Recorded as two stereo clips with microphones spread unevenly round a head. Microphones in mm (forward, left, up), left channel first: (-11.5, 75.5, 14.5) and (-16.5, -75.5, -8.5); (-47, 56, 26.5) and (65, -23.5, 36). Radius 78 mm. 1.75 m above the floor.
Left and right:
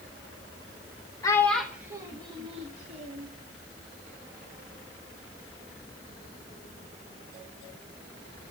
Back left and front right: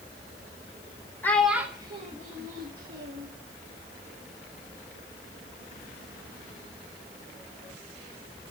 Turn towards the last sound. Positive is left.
turn(degrees=-45)